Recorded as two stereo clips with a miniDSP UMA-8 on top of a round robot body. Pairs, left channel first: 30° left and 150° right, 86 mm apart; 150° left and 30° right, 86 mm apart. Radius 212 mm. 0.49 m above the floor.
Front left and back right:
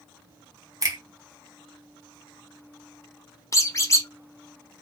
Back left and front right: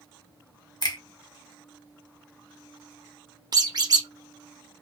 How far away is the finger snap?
About 1.5 m.